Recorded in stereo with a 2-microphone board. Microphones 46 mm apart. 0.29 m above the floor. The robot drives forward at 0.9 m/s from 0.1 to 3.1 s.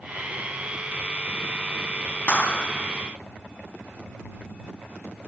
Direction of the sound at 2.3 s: 30° left (ahead or behind).